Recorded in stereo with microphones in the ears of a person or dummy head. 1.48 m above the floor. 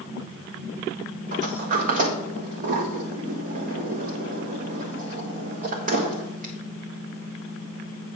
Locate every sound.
1.3 s a sliding door: 50° right (ahead or behind), 1.2 m